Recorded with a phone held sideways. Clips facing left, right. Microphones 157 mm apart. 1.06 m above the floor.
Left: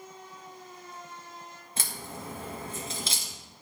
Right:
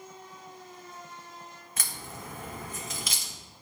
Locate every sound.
1.8 s a crack: 30° left (ahead or behind), 1.4 m